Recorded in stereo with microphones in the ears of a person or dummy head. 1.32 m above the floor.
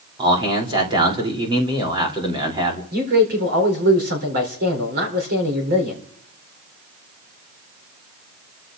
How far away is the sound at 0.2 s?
About 3 m.